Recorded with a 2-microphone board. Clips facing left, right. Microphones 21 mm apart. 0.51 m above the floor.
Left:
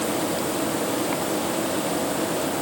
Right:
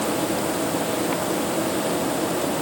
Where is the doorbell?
I don't hear a doorbell.